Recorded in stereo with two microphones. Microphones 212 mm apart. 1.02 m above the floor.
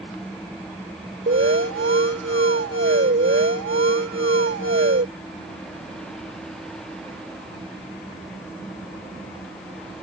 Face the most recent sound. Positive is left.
turn(degrees=-65)  # may be behind; listen again after turning